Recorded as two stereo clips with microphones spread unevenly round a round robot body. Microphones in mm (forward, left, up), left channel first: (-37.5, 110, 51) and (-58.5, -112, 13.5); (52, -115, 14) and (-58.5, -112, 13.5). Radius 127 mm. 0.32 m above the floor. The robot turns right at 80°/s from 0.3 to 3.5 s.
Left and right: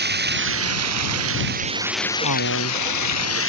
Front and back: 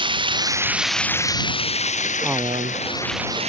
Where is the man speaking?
90° left; by 2.8 s 135° left.